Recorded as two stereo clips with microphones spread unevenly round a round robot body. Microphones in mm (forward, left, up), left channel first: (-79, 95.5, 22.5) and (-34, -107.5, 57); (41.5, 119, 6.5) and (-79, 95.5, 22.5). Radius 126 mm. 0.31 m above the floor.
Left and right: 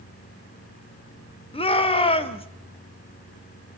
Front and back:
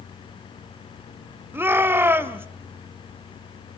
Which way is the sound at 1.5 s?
120° left.